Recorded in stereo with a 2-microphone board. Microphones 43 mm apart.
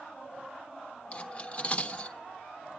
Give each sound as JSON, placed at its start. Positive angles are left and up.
{"t": 1.1, "sound": "cutlery clinking", "side_deg": 35, "distance_m": 1.1}